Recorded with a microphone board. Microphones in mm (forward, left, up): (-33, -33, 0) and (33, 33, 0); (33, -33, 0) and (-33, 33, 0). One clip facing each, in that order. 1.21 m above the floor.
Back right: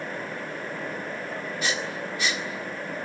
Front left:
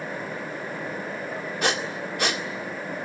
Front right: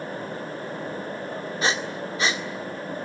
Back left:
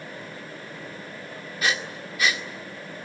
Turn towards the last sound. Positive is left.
turn(degrees=15)